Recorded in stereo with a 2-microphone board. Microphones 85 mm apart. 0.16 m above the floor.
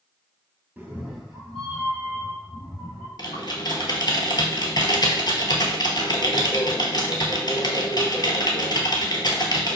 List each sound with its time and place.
0.8 s a cat meowing: 20° right (ahead or behind), 0.6 m; by 3.1 s 10° left (ahead or behind), 3 m
3.2 s typing on a keyboard: 55° left (ahead or behind), 0.7 m